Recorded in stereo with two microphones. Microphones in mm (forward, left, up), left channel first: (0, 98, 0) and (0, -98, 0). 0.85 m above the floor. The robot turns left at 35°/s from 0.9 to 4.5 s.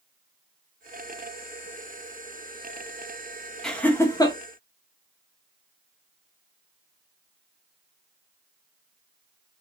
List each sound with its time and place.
3.6 s laughter: 5° left (ahead or behind), 0.5 m; by 4.4 s 25° left (ahead or behind), 0.5 m